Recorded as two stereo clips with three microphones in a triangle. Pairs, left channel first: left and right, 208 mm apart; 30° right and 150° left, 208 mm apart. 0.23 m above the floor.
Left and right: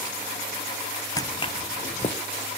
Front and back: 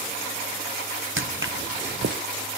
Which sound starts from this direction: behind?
Footsteps, at 1.2 s.